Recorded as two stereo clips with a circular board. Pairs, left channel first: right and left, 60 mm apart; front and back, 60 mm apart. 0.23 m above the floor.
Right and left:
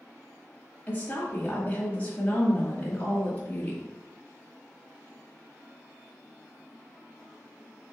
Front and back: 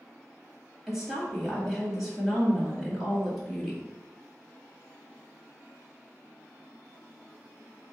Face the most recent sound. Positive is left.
turn(degrees=-100)